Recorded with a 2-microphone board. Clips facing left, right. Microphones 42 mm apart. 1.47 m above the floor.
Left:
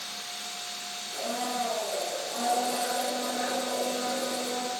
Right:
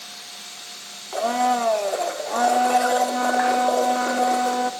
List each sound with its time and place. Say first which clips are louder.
1.1 s a blender: right 11 dB; 70° right (ahead or behind), 2.5 m